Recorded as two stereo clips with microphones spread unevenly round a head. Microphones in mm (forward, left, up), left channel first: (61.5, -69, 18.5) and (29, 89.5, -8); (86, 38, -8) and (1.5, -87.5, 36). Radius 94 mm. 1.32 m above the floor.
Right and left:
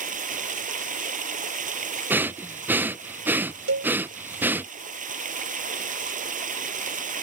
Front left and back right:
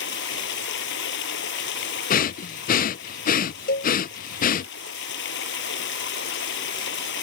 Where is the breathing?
20° left.